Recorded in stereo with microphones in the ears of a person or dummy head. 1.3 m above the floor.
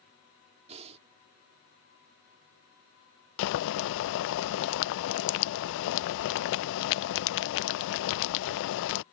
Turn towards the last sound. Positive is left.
turn(degrees=70)  # may be behind; listen again after turning